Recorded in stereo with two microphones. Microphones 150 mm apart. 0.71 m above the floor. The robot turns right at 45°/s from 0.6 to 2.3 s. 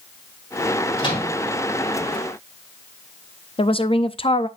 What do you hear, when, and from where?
1.0 s a microwave: 30° left (ahead or behind), 5.5 m; by 1.4 s 45° left (ahead or behind), 5.5 m
3.6 s a woman speaking: 40° left (ahead or behind), 0.5 m